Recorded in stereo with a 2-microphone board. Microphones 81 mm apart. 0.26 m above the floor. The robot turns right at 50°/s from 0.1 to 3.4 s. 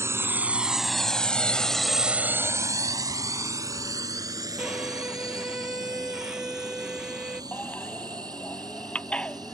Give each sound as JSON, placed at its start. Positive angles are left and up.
{"t": 0.0, "sound": "a drone", "side_deg": -35}
{"t": 4.6, "sound": "a violin", "side_deg": -10}
{"t": 7.5, "sound": "a baby crying", "side_deg": 15}